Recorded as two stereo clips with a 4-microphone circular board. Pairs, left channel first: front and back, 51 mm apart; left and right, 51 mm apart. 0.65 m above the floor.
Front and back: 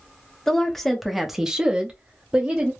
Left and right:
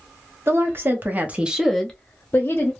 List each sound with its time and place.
0.5 s a woman speaking: 80° right, 1.0 m; by 2.7 s 120° left, 0.9 m